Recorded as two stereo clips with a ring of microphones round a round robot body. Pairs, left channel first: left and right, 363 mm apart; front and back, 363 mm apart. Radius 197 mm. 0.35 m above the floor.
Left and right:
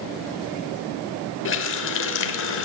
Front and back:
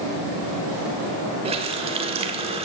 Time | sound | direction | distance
1.4 | a running tap | 115° left | 0.9 m